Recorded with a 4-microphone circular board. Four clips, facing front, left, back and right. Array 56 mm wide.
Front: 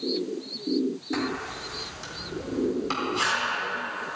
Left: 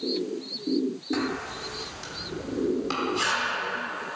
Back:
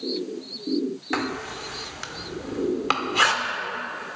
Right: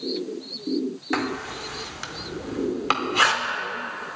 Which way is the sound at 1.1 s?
135° right.